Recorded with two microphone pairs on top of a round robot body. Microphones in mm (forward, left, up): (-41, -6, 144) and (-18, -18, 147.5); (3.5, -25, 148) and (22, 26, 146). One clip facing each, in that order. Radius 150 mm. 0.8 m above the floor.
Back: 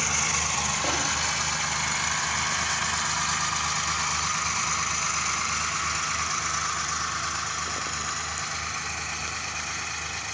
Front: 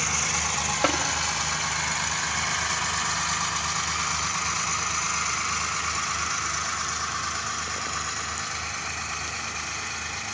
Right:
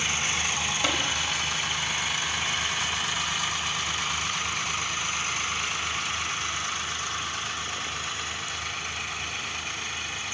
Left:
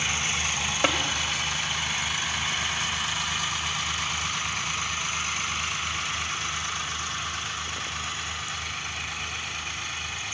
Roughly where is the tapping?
Ahead.